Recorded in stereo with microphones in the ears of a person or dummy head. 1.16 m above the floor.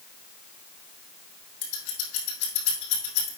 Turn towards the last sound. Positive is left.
turn(degrees=80)